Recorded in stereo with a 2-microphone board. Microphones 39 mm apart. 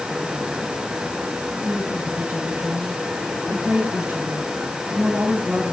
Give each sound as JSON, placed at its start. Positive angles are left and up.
{"t": 1.6, "sound": "a woman speaking", "side_deg": -55, "distance_m": 7.0}